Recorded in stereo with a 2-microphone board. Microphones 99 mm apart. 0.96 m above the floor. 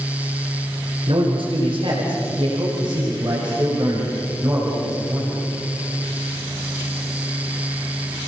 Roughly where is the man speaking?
Right.